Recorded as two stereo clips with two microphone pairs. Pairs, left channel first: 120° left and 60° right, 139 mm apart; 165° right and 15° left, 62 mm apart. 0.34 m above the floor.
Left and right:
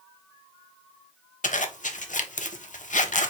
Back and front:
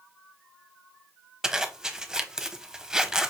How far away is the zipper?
About 0.6 m.